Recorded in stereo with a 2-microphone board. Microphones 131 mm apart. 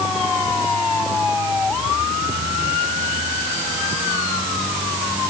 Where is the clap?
No clap in this recording.